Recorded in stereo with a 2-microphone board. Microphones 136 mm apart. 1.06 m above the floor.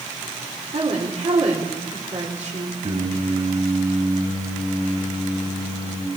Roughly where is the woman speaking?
Right.